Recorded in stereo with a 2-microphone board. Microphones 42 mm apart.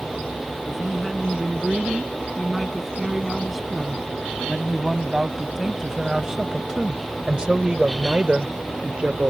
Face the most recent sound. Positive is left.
turn(degrees=-40)  # may be behind; listen again after turning